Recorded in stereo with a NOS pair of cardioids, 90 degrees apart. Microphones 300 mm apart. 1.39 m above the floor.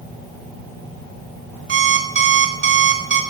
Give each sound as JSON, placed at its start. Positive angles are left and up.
{"t": 1.7, "sound": "an alarm clock", "azimuth_deg": -40, "distance_m": 2.5}